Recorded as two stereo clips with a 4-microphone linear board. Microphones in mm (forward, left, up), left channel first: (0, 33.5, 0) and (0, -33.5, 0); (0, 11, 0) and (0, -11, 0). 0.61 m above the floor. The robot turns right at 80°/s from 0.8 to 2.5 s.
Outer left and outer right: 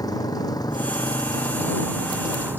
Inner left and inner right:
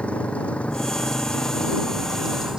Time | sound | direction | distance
0.0 | a motorcycle | 70° left (ahead or behind) | ?